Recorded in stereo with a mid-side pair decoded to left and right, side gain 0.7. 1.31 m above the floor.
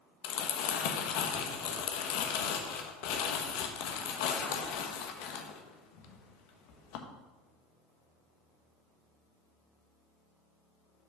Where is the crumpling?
70° left, 1.1 m.